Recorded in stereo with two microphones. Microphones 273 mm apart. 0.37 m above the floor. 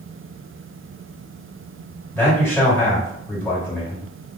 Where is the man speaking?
10° left (ahead or behind), 1.6 m.